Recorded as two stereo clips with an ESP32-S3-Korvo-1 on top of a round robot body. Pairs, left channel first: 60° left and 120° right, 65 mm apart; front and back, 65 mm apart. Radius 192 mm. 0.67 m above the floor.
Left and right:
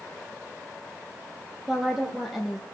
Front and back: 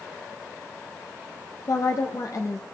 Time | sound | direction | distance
1.7 | a woman speaking | 35° right | 1.5 m